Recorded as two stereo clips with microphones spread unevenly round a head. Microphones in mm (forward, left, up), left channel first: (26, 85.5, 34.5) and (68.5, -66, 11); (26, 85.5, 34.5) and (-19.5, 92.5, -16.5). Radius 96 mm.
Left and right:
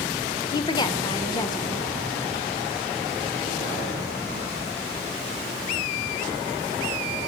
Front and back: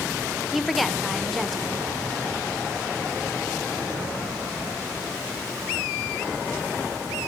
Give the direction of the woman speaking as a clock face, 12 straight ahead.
6 o'clock.